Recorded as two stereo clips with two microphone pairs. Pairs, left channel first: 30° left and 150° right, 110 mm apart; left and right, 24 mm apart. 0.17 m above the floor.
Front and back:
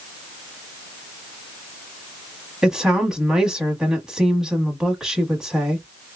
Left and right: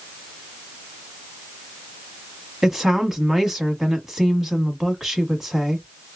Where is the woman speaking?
85° right, 1.1 m.